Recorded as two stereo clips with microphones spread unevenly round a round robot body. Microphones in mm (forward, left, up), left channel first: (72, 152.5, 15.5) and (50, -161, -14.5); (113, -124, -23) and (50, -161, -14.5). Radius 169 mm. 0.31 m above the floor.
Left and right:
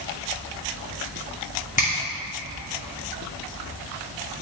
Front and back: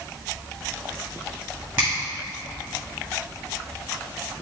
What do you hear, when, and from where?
1.8 s a finger snap: 150° left, 1.9 m